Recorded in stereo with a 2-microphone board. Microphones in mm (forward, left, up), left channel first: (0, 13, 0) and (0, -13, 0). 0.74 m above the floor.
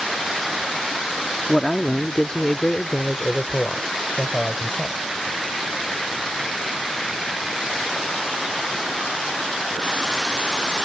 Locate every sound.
1.5 s a man speaking: 10° left (ahead or behind); by 5.0 s 45° left (ahead or behind)